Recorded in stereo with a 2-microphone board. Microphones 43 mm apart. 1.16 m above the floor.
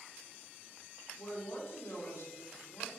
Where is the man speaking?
80° left, 3 m.